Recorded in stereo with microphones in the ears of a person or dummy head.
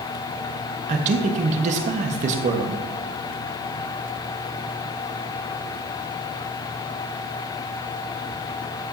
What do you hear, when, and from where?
0.9 s a man speaking: 40° right (ahead or behind), 1.4 m